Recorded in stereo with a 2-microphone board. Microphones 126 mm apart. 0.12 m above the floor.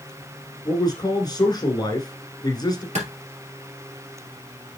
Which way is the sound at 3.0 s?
55° right (ahead or behind).